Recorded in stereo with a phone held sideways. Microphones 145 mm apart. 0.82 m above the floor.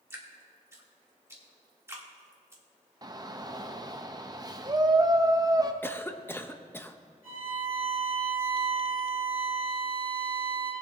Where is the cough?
15° left (ahead or behind), 0.6 m.